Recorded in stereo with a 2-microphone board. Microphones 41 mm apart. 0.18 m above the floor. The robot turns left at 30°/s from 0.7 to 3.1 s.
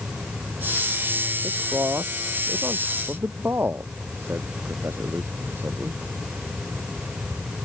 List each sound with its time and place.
1.4 s a man speaking: 65° right (ahead or behind)